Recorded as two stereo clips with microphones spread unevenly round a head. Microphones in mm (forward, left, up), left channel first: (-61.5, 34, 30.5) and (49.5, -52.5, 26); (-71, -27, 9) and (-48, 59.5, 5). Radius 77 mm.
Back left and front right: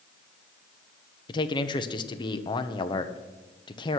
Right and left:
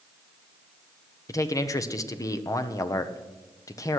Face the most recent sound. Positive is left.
turn(degrees=-160)